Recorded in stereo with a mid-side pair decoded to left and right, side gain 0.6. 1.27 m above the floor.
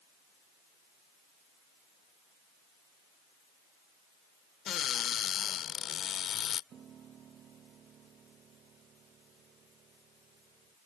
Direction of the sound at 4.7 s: 50° left.